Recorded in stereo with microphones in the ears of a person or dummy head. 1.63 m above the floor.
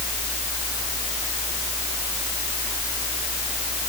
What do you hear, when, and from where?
0.0 s a fan: 10° right (ahead or behind)